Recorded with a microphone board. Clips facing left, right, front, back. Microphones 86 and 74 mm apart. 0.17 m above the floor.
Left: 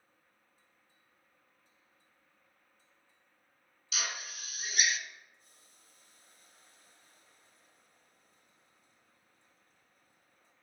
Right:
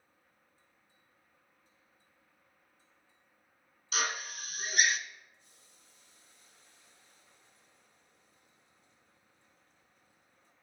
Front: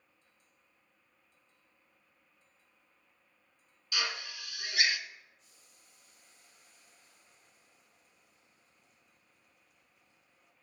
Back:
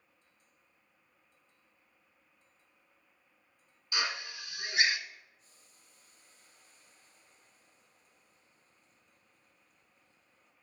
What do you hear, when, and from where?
3.9 s a drill: 120° right, 1.1 m
5.4 s boiling: 135° left, 5.5 m